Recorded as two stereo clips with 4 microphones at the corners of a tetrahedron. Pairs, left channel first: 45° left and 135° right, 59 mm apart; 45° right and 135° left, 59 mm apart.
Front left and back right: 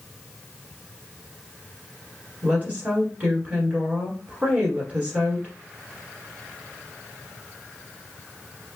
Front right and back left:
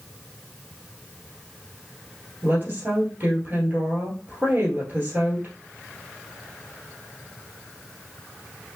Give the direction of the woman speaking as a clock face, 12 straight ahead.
6 o'clock.